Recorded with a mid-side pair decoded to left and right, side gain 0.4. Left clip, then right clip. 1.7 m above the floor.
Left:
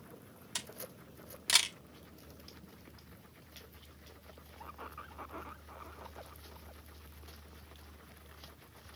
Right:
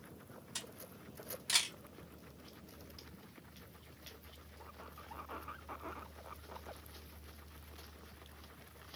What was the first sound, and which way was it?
A camera shutter, 60° left.